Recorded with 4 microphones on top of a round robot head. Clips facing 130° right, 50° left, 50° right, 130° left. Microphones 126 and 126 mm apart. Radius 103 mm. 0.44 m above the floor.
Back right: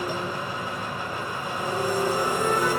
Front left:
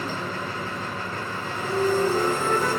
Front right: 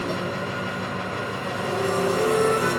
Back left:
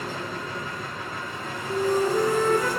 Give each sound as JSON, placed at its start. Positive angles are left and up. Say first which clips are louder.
{"t": 0.0, "sound": "an engine running", "louder": "back right 1 dB, front right 5 dB", "azimuth_deg": -50, "distance_m": 2.0}
{"t": 1.7, "sound": "a flute", "louder": "front left 4 dB, back left 1 dB", "azimuth_deg": 140, "distance_m": 4.5}